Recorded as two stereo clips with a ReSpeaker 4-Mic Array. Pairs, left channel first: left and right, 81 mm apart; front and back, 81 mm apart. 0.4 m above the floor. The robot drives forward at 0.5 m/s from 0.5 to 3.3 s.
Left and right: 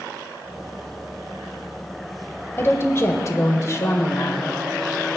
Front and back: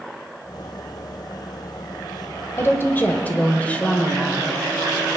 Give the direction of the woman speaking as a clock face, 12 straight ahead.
11 o'clock.